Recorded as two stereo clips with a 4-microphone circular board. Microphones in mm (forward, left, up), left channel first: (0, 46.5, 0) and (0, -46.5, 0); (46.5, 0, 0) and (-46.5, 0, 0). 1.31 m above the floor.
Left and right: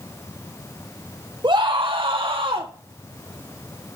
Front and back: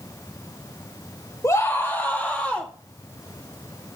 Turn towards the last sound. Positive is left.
turn(degrees=-80)